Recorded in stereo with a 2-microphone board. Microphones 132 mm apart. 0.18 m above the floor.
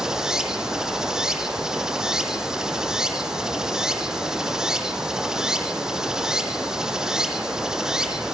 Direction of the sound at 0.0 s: 5° right (ahead or behind).